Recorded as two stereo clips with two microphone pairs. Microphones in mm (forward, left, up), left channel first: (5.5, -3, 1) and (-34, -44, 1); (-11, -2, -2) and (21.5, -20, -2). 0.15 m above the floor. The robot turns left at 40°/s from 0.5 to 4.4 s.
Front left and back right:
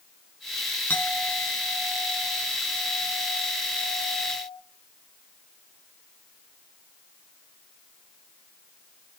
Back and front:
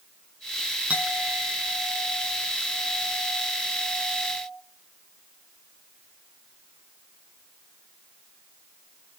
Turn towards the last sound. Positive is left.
turn(degrees=-135)